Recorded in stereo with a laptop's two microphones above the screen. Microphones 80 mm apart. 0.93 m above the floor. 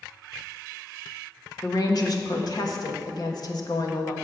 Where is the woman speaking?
55° left (ahead or behind), 1.3 m.